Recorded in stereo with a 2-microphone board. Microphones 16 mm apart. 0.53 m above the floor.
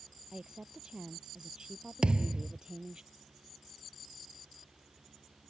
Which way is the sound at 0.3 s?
55° right (ahead or behind).